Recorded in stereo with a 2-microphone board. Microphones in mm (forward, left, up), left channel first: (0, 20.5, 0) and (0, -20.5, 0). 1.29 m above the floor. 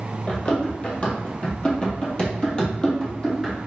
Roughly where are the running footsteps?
Left.